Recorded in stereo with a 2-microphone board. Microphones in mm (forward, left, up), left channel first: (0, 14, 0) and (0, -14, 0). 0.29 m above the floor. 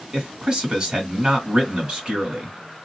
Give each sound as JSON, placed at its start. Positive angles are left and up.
{"t": 0.1, "sound": "a man speaking", "side_deg": -25, "distance_m": 1.9}